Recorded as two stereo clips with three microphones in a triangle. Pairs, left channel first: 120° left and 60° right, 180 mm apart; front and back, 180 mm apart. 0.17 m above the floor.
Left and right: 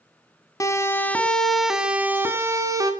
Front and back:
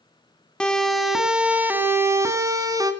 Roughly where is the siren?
Left.